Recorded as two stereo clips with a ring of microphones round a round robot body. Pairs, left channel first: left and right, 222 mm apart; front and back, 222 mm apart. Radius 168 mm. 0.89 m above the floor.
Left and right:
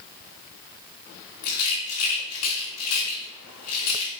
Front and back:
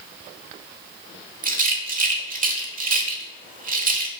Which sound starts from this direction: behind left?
A rattle, at 1.4 s.